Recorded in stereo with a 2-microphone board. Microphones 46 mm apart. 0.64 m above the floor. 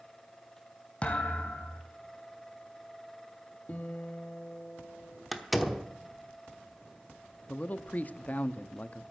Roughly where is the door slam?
Centre.